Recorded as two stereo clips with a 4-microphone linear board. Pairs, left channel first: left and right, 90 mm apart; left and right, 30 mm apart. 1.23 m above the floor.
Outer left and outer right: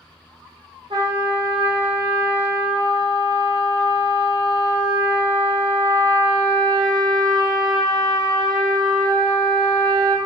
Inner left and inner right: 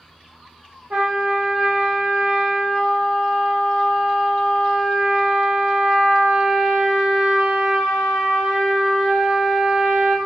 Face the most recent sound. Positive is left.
turn(degrees=-60)  # may be behind; listen again after turning